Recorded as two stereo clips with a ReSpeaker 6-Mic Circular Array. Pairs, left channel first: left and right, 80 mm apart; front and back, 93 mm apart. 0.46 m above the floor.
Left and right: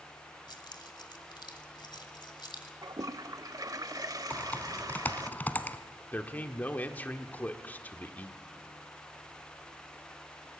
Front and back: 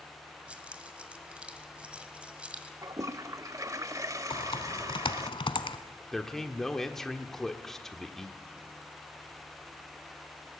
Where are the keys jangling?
100° left, 1.6 m.